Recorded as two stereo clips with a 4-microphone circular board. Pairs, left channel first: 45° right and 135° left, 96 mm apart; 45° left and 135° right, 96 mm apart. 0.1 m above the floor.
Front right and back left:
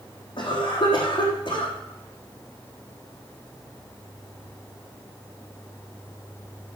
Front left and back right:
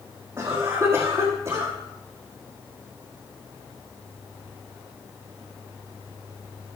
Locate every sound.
0.4 s a cough: 75° right, 4.5 m